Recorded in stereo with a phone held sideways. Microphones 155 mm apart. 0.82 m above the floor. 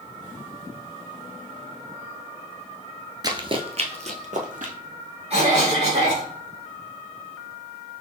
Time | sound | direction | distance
3.2 | running footsteps | 25° right (ahead or behind) | 0.8 m
5.3 | a cough | 45° right (ahead or behind) | 2 m